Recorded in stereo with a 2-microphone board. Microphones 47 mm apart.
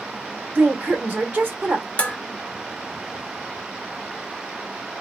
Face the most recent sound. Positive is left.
turn(degrees=30)  # may be behind; listen again after turning